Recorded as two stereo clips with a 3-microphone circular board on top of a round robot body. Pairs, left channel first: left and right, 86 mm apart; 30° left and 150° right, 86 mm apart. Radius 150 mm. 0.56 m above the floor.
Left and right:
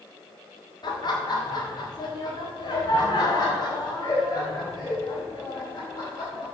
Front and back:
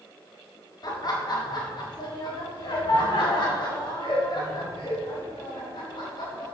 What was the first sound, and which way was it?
Laughter, 65° left.